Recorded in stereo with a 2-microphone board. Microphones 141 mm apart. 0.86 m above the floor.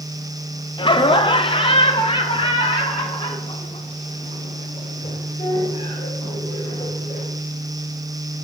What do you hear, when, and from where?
0.8 s laughter: 35° left (ahead or behind), 0.6 m